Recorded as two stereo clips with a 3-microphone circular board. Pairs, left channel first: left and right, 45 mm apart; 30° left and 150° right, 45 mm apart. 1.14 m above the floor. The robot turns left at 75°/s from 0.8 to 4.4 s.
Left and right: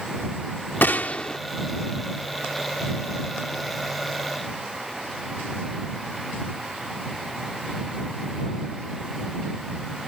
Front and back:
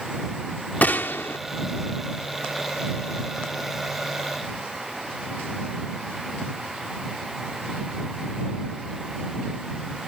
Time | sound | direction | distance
0.8 | a gunshot | 65° left | ?